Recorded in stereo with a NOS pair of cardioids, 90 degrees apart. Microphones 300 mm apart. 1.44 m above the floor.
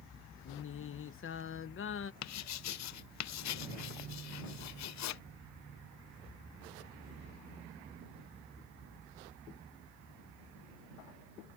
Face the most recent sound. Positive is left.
turn(degrees=65)